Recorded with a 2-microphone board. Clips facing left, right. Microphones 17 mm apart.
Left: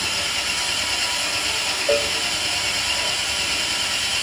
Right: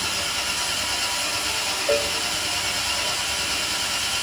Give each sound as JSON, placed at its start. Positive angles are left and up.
{"t": 0.0, "sound": "an engine running", "side_deg": 20, "distance_m": 2.5}
{"t": 1.9, "sound": "a cowbell", "side_deg": 20, "distance_m": 0.9}